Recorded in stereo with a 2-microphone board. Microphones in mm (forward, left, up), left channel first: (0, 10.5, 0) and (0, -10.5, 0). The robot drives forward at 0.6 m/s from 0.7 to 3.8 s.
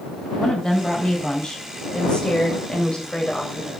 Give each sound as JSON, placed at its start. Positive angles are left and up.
{"t": 0.4, "sound": "a woman speaking", "side_deg": 35, "distance_m": 4.0}